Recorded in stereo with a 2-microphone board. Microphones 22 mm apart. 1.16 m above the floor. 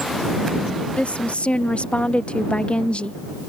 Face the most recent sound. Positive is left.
turn(degrees=65)  # may be behind; listen again after turning